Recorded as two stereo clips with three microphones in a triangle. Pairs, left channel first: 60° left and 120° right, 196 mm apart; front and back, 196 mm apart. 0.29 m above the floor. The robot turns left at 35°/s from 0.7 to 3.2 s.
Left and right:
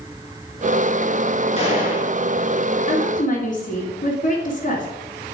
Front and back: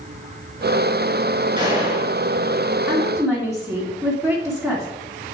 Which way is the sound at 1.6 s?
110° left.